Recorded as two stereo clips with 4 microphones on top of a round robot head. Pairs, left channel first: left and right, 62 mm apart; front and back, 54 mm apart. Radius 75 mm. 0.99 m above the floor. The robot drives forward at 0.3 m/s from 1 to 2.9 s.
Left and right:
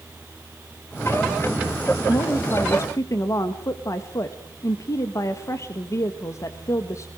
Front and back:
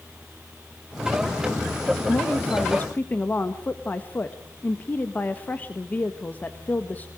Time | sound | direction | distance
2.1 | a woman speaking | 50° left | 1.6 m